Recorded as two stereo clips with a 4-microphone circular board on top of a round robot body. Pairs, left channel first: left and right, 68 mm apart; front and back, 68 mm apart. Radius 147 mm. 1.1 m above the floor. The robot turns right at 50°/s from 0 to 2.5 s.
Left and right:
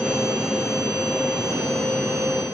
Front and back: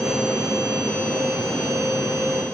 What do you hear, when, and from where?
Only background noise.